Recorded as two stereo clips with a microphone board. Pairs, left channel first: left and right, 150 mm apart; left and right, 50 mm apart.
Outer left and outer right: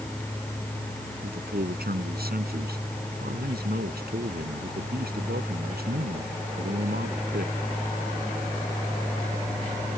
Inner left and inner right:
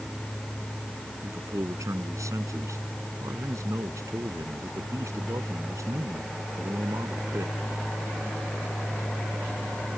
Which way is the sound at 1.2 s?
85° right.